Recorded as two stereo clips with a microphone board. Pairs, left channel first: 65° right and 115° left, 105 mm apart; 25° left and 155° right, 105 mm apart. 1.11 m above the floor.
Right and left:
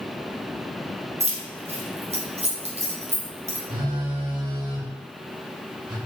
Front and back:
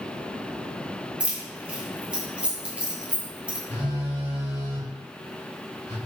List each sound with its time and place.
1.2 s keys jangling: 125° left, 0.7 m
3.7 s a phone buzzing: 80° left, 1.6 m